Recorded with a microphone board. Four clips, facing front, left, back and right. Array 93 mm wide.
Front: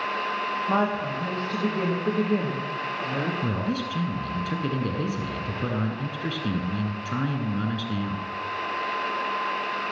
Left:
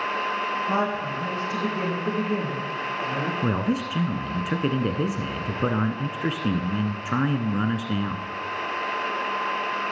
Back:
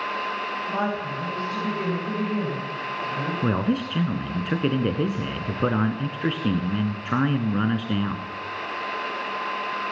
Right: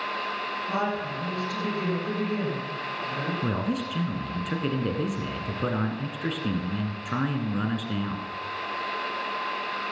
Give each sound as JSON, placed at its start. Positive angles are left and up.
{"t": 0.7, "sound": "a woman speaking", "azimuth_deg": 25, "distance_m": 6.0}
{"t": 3.4, "sound": "a man speaking", "azimuth_deg": 150, "distance_m": 1.4}